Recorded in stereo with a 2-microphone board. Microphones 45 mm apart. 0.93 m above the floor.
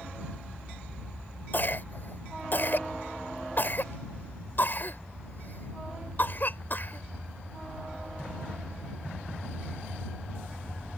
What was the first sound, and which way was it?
A cough, 45° left (ahead or behind).